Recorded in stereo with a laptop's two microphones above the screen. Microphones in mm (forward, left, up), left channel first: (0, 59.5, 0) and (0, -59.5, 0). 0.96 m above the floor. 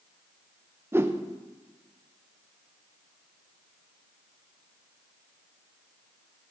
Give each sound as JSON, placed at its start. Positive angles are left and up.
{"t": 0.9, "sound": "a whoosh", "side_deg": -20, "distance_m": 0.6}